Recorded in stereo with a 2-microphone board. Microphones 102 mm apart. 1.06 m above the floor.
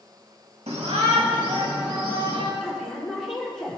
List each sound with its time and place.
0.7 s a shout: 85° right, 1.5 m; by 2.5 s 80° right, 4 m
2.6 s a woman speaking: 5° left (ahead or behind), 3 m